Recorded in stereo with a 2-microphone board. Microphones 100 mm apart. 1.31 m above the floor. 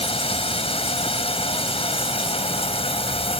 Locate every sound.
0.0 s running water: 80° left